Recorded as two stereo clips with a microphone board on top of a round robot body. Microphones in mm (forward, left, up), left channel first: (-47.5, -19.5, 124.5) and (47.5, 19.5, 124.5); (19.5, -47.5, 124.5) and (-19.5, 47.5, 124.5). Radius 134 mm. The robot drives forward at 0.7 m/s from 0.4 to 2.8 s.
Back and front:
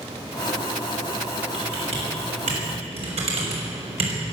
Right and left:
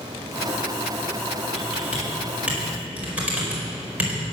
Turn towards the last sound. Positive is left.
turn(degrees=35)